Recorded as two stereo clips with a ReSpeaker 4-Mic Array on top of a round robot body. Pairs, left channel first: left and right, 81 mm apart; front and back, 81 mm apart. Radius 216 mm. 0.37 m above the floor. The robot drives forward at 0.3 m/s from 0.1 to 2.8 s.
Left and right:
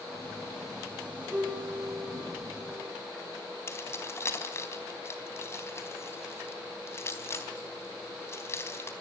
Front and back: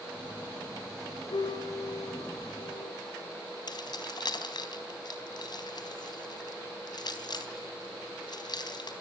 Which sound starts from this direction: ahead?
A piano, at 1.3 s.